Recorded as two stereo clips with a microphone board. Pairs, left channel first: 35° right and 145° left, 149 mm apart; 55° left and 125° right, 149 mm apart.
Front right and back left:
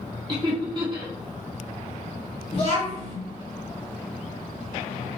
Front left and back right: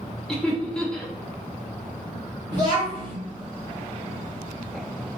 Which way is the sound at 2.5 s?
70° right.